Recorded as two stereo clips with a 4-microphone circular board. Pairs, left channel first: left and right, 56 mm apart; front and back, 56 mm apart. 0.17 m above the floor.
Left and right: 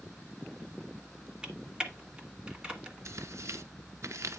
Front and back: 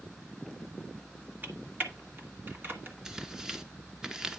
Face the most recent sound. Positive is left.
turn(degrees=-100)